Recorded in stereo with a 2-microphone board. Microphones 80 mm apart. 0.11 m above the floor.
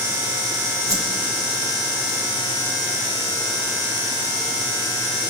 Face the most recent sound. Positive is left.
turn(degrees=-45)  # may be behind; listen again after turning